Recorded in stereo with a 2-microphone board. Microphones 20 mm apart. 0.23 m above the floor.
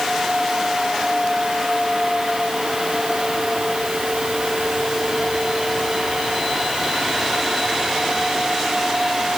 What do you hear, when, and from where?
Only background noise.